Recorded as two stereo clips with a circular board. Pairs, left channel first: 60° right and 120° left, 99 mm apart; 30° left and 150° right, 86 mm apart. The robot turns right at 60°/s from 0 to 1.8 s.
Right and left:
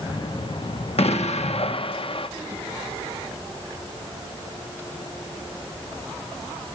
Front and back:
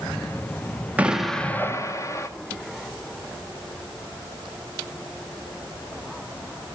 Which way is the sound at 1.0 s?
75° right.